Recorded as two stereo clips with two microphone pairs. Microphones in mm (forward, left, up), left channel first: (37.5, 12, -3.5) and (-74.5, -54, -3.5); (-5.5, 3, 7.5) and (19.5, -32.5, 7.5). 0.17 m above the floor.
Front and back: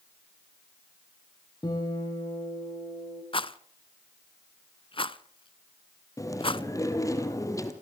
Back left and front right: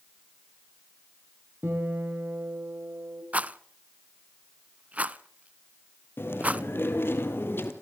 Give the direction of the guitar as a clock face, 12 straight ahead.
1 o'clock.